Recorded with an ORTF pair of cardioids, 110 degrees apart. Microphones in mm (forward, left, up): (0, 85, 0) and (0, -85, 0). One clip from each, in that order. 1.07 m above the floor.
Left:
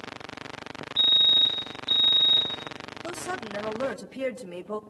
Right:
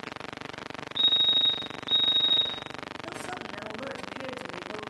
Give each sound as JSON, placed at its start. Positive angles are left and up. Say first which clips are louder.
{"t": 1.0, "sound": "a fire alarm", "louder": "left 3 dB", "azimuth_deg": 20, "distance_m": 4.0}
{"t": 3.0, "sound": "a woman speaking", "louder": "left 7 dB", "azimuth_deg": 50, "distance_m": 1.3}